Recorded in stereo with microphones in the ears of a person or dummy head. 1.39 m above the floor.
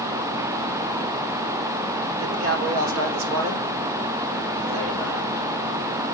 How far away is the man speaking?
About 3.5 m.